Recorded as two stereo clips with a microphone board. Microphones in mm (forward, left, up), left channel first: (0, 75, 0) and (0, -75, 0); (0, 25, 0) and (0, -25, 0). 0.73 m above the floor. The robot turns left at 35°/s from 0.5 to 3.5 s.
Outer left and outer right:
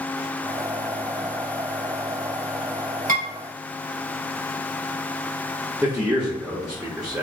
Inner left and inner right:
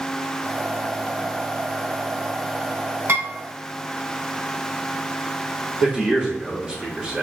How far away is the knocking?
No knocking in this recording.